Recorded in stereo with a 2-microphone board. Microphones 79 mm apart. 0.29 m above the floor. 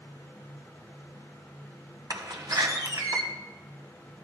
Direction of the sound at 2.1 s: 50° right (ahead or behind).